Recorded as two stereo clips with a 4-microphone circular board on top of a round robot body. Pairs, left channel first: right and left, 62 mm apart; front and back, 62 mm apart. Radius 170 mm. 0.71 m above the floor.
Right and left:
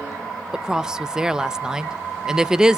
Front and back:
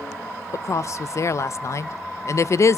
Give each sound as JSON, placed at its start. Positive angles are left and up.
{"t": 0.5, "sound": "a woman speaking", "azimuth_deg": 10, "distance_m": 0.6}